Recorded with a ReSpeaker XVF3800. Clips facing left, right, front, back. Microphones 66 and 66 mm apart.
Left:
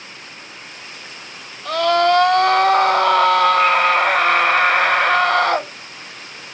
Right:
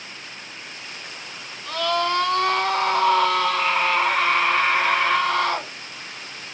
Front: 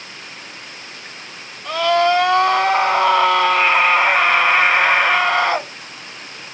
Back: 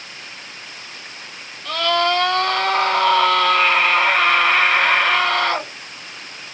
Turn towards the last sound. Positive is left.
turn(degrees=75)